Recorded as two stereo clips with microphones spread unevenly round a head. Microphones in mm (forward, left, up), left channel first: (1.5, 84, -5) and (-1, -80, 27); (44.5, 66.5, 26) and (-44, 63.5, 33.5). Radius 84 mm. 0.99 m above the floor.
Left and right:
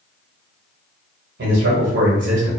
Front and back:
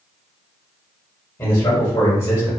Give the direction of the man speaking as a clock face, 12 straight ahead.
2 o'clock.